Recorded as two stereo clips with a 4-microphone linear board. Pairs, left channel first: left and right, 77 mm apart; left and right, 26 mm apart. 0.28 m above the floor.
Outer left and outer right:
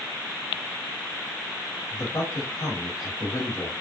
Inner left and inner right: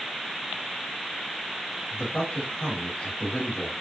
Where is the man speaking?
35° left (ahead or behind), 1.5 m.